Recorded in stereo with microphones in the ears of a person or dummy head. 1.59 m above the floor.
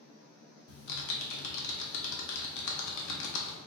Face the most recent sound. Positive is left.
turn(degrees=75)  # may be behind; listen again after turning